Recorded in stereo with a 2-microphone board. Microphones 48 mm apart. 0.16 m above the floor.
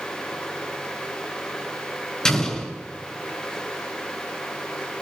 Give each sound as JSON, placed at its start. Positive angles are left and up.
{"t": 2.2, "sound": "an explosion", "side_deg": 15, "distance_m": 2.0}